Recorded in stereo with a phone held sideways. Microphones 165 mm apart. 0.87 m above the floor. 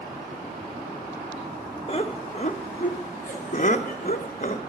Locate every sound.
1.9 s laughter: 35° left (ahead or behind), 1.1 m; by 4.6 s 50° left (ahead or behind), 1.9 m